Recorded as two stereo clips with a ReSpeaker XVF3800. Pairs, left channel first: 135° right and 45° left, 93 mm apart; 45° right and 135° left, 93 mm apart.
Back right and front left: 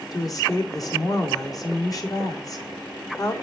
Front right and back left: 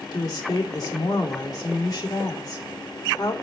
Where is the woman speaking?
90° right, 1.8 m.